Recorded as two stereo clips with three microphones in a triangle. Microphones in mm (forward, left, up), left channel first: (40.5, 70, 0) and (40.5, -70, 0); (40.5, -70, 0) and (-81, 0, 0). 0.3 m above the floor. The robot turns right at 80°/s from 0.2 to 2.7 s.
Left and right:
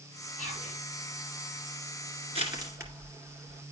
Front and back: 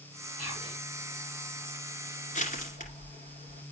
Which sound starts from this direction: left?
Whispering, at 0.4 s.